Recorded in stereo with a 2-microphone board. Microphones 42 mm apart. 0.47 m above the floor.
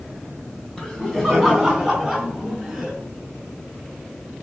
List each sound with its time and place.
0.8 s laughter: 10° left (ahead or behind), 3.5 m; by 3.0 s 10° right (ahead or behind), 4.5 m